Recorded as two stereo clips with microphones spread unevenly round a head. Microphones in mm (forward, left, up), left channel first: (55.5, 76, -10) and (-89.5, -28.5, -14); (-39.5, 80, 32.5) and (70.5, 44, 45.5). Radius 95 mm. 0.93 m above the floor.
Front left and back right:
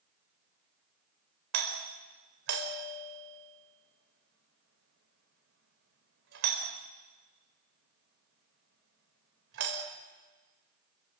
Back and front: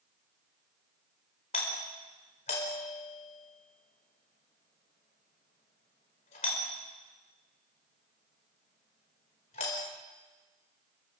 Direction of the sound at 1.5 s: 155° right.